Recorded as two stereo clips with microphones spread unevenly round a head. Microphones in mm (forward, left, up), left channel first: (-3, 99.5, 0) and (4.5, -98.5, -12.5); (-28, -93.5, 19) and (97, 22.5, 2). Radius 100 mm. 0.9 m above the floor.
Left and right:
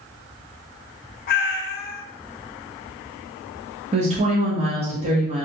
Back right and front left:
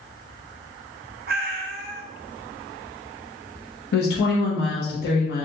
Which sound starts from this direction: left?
A cat meowing, at 1.3 s.